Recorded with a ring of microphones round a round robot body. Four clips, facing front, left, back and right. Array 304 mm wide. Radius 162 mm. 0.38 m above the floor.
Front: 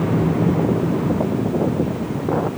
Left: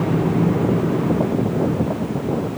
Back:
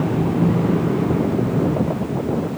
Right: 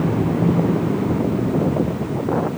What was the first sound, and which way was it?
Only background noise.